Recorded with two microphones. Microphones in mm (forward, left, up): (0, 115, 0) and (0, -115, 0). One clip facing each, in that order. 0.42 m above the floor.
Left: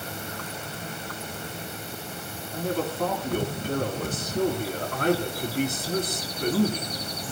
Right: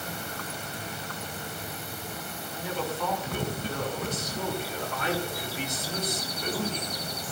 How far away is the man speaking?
About 4 m.